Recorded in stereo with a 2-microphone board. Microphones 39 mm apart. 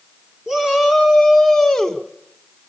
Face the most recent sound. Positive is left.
turn(degrees=5)  # may be behind; listen again after turning